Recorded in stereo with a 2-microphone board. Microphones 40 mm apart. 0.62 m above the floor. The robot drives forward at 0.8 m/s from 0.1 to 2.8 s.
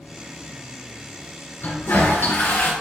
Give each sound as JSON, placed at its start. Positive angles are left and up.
{"t": 1.6, "sound": "a toilet flushing", "side_deg": 85, "distance_m": 2.0}